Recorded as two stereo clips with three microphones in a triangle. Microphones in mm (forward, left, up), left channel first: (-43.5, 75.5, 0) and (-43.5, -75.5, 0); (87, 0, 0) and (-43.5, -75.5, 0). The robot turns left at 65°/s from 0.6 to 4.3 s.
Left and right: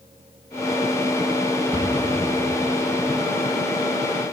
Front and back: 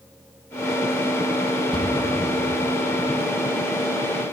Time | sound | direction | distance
1.7 | a cupboard door | 25° right | 1.7 m